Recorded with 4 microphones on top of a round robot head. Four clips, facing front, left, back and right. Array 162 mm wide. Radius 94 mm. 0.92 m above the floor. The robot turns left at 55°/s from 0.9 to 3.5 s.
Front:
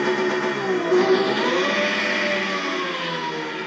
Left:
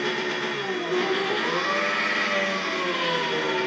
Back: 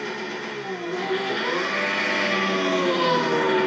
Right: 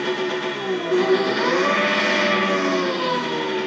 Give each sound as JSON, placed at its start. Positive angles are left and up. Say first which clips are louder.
{"t": 0.0, "sound": "an engine running", "louder": "right 4 dB, front 10 dB", "azimuth_deg": -25, "distance_m": 1.3}